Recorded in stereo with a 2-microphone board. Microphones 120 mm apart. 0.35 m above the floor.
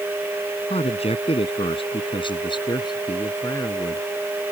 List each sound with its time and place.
0.7 s a man speaking: 65° left (ahead or behind); by 4.1 s 30° left (ahead or behind)